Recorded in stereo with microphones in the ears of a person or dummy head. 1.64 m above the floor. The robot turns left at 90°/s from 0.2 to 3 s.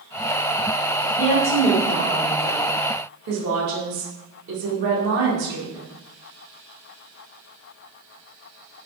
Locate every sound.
1.2 s a woman speaking: 60° left, 1.2 m; by 5.8 s 105° right, 1.2 m